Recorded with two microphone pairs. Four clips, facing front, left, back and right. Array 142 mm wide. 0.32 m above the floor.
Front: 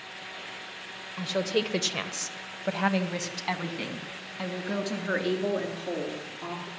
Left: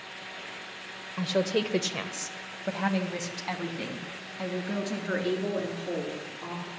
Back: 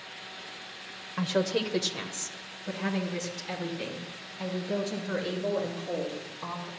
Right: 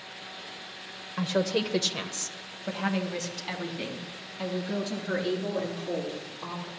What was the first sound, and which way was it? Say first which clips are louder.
A woman speaking: even, even; 140° right.